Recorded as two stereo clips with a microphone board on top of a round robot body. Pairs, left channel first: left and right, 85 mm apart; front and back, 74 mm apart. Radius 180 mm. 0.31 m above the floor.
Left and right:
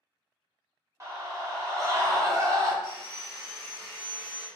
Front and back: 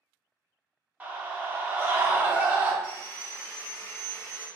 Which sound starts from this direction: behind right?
A scream, at 1.0 s.